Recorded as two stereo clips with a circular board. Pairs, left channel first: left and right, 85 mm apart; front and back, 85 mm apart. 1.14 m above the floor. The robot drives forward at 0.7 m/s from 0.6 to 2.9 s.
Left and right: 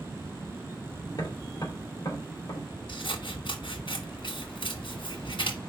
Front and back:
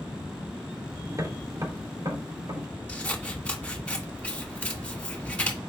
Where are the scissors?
75° left, 1.3 m.